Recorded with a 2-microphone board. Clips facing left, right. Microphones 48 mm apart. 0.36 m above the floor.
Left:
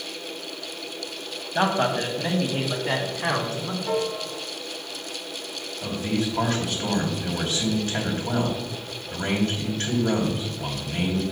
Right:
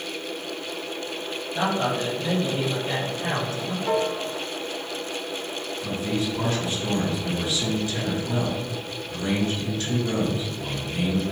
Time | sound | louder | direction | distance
1.6 | a man speaking | left 2 dB | 35° left (ahead or behind) | 1.9 m
3.9 | a piano | right 3 dB | 20° right (ahead or behind) | 0.7 m
5.8 | a man speaking | left 1 dB | 55° left (ahead or behind) | 2.5 m